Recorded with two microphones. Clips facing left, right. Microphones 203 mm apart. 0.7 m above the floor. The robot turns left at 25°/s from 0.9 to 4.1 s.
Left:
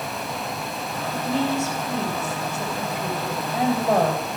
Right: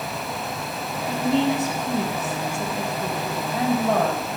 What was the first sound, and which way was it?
A woman speaking, 150° right.